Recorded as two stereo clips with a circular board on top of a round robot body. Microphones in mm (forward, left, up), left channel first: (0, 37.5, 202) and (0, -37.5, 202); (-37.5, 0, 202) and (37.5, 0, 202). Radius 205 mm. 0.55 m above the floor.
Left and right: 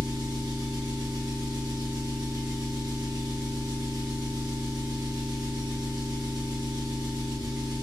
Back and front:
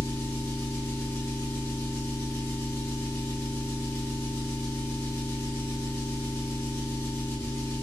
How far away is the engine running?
About 1.5 m.